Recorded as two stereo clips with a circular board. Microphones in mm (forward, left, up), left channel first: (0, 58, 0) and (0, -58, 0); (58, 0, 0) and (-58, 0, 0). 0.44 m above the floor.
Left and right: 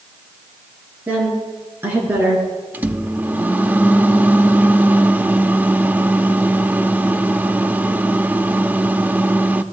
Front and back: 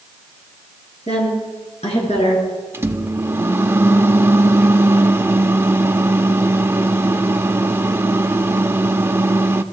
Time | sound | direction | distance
1.1 | a woman speaking | 15° right | 7.5 m
2.7 | a microwave | 145° right | 0.7 m